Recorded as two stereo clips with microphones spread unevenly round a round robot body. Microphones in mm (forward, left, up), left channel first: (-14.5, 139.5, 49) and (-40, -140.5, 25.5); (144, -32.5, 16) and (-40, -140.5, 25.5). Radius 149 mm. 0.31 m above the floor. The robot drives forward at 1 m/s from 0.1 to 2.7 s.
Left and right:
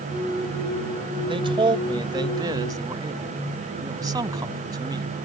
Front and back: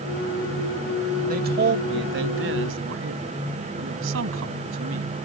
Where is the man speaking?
150° right; by 5.1 s 170° right.